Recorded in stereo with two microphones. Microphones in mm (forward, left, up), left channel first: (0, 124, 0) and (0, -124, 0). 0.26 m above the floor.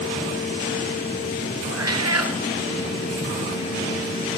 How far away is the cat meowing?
About 2.0 m.